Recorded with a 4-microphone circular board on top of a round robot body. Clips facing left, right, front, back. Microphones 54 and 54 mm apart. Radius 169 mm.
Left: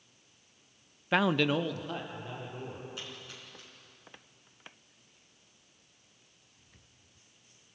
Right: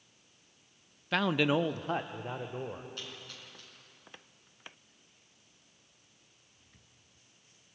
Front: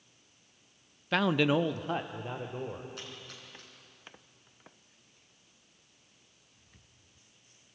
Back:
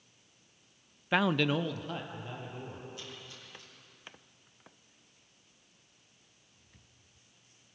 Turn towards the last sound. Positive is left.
turn(degrees=15)